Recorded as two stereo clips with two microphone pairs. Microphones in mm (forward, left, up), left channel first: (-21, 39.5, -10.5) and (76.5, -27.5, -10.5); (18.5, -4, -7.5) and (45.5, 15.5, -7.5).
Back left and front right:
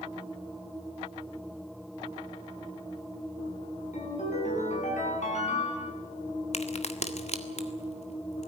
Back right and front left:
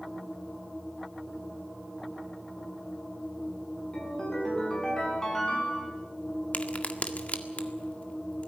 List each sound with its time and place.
3.9 s a ringtone: 145° left, 8 m
6.5 s a crack: 170° left, 1.7 m